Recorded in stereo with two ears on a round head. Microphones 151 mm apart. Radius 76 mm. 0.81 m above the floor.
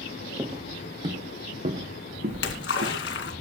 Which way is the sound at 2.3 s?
75° left (ahead or behind).